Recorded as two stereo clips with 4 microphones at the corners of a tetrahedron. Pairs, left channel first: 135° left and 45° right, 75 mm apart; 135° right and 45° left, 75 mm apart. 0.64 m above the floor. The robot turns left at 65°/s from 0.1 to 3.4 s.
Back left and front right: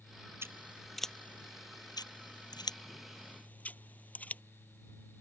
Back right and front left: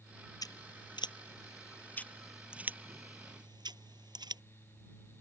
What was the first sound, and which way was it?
Scissors, 100° right.